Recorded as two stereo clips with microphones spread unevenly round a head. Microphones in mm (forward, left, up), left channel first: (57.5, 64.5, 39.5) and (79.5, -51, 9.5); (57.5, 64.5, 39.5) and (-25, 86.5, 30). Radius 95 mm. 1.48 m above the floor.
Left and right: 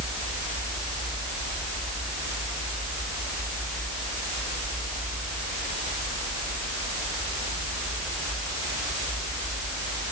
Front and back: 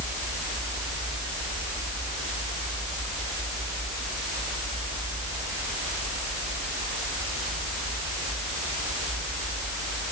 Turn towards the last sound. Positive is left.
No sound to turn to.